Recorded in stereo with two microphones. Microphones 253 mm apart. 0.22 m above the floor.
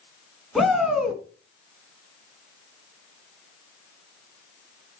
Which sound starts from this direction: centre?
A shout, at 0.6 s.